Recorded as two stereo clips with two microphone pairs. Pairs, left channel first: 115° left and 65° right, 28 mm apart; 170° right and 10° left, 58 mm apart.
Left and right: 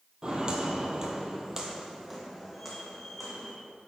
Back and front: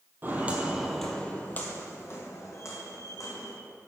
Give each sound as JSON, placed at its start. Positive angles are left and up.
{"t": 0.2, "sound": "footsteps", "azimuth_deg": -25, "distance_m": 1.2}